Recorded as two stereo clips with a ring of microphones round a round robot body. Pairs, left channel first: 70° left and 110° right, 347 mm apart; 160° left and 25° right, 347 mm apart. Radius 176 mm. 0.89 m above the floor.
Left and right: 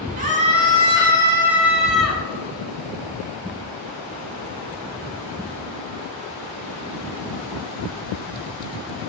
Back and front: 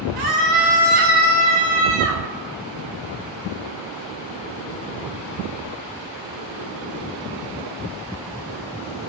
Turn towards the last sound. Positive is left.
turn(degrees=-20)